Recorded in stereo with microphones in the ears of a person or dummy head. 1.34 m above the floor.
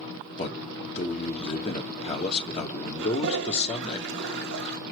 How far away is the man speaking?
About 1.8 m.